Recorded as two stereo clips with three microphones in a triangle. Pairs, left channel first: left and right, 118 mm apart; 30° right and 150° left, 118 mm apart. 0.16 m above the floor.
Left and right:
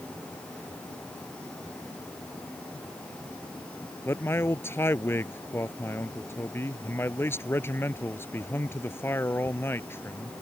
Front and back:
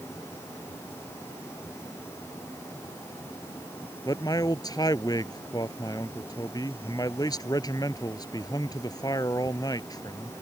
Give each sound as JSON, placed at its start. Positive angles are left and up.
{"t": 4.0, "sound": "a man speaking", "azimuth_deg": 20}